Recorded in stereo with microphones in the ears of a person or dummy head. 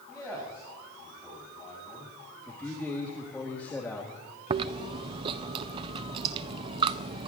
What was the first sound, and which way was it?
A man speaking, 10° left (ahead or behind).